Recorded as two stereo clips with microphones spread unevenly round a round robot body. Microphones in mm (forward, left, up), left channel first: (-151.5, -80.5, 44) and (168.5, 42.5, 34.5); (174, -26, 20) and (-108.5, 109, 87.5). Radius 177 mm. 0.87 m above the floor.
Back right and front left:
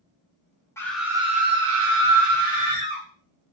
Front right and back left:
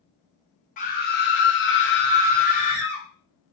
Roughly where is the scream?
Right.